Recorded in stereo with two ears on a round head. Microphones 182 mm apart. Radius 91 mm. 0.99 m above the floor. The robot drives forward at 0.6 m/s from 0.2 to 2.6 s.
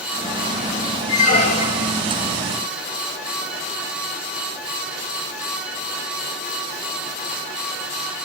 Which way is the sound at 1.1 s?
35° left (ahead or behind).